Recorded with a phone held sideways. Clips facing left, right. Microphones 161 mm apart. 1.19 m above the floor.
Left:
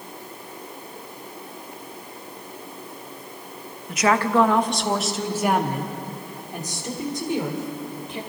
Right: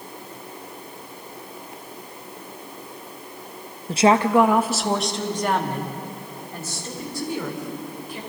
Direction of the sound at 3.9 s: 35° right (ahead or behind).